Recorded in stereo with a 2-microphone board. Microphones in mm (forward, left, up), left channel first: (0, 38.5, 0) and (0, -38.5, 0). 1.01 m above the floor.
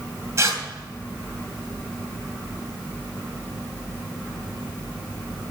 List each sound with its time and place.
0.4 s tearing paper: 40° right (ahead or behind), 2.5 m